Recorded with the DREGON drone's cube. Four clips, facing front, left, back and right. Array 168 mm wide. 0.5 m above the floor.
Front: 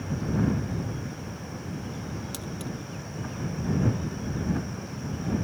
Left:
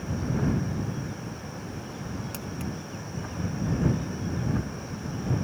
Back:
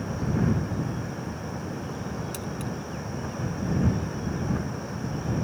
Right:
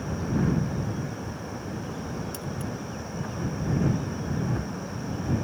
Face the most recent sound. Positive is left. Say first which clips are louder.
# right 1 dB, back 3 dB
turn(degrees=65)